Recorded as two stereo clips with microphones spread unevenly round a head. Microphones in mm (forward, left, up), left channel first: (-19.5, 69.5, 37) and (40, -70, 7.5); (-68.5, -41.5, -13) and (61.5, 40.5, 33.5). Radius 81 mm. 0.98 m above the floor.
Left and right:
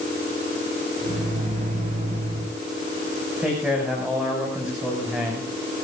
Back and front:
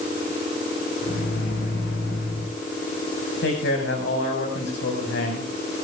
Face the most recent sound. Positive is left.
turn(degrees=-150)